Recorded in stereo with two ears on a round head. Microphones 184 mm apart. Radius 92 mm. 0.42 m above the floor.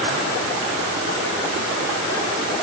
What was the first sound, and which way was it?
Only background noise.